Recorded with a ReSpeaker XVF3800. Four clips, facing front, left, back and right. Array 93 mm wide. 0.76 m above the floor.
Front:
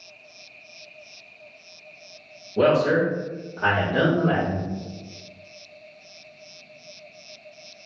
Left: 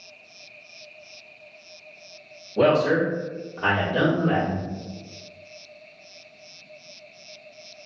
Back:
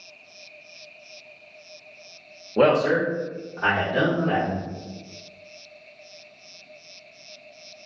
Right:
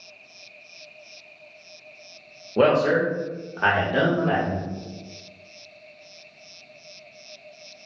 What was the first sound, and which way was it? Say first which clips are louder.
A man speaking: right 1 dB, even; 140° right.